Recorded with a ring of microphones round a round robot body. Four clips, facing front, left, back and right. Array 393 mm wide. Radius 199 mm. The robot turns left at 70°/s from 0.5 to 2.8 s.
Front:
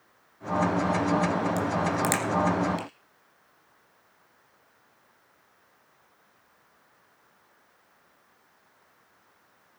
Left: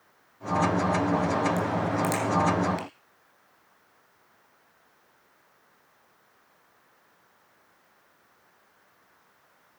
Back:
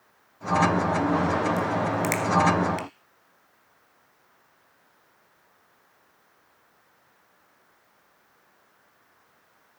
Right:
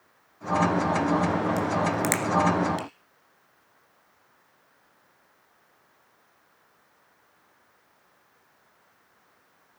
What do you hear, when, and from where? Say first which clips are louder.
1.6 s a crack: right 1 dB, back 1 dB; 40° right, 1.7 m; by 2.9 s 125° right, 1.7 m